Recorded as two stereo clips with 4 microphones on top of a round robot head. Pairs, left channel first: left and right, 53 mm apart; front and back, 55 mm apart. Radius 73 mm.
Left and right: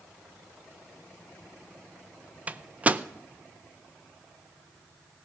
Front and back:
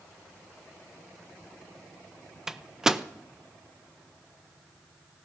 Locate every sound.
2.5 s a microwave: 110° right, 0.6 m